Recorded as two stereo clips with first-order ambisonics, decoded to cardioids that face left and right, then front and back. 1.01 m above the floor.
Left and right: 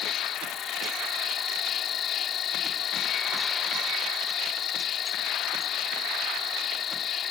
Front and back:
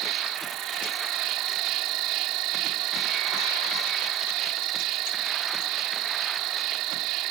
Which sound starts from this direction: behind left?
An insect, at 0.0 s.